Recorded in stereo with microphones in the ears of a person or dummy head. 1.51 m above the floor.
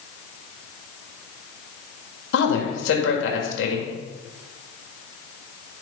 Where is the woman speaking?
75° left (ahead or behind), 2 m.